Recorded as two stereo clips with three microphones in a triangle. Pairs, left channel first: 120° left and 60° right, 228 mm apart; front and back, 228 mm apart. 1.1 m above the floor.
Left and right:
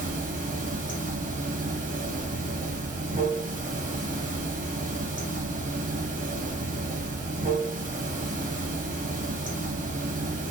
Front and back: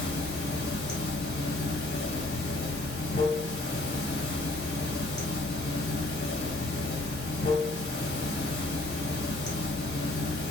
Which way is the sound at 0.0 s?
15° right.